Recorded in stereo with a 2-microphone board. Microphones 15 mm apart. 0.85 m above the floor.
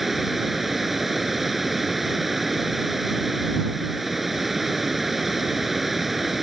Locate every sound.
0.0 s running water: 10° right (ahead or behind)